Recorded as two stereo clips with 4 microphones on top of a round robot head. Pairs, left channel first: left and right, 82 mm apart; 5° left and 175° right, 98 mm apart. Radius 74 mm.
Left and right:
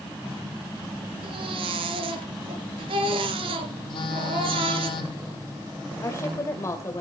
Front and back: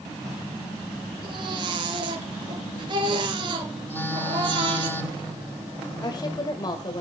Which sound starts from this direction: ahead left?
A woman speaking, at 6.0 s.